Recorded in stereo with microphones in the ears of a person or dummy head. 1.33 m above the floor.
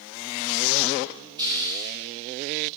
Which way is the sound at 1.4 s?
25° right (ahead or behind).